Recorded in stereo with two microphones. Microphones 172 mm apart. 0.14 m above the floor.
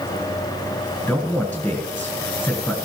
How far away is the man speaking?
About 1.7 m.